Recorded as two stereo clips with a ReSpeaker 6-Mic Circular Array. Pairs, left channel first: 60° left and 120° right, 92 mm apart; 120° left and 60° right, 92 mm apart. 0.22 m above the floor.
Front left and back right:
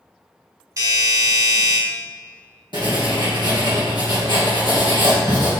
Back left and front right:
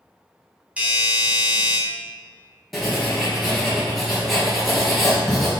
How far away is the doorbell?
About 2.5 m.